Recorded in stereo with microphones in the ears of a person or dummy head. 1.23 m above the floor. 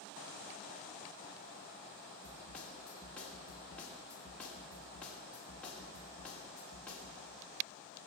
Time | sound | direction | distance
2.2 | a snare drum | 5° left (ahead or behind) | 2.5 m